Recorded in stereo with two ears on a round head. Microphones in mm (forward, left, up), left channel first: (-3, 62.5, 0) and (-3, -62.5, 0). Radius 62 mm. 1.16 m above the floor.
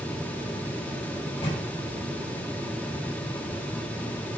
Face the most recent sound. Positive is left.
turn(degrees=40)  # may be behind; listen again after turning